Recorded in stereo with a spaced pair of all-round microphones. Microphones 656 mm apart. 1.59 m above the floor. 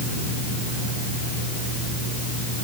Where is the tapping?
No tapping in this recording.